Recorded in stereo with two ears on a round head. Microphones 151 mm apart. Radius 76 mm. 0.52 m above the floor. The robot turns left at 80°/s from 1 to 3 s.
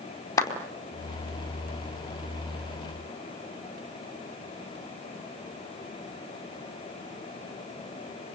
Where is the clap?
20° left (ahead or behind), 4 m.